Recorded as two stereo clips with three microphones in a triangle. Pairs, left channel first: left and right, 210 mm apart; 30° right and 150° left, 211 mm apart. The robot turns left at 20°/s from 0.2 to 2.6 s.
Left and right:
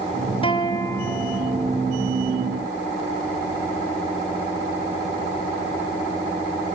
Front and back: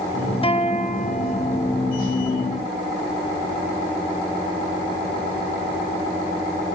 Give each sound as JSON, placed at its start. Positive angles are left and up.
{"t": 0.4, "sound": "a guitar", "azimuth_deg": 25, "distance_m": 0.9}